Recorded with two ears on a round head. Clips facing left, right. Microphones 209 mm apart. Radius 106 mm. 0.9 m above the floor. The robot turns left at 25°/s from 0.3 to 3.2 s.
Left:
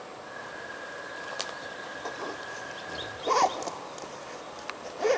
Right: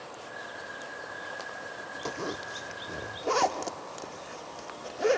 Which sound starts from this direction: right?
A zipper, at 2.0 s.